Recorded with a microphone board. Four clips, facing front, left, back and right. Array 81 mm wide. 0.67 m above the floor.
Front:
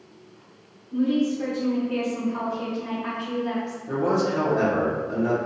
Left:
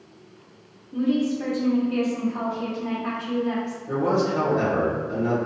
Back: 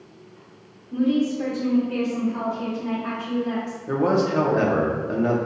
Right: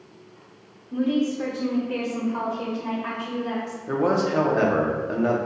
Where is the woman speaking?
115° right, 1.5 m; by 3.8 s 60° right, 3 m.